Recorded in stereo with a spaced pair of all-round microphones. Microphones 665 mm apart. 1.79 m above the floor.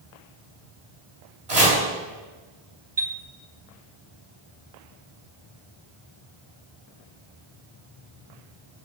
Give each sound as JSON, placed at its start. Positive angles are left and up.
{"t": 1.5, "sound": "chopping", "side_deg": -70, "distance_m": 4.0}
{"t": 3.0, "sound": "a chime", "side_deg": -40, "distance_m": 1.0}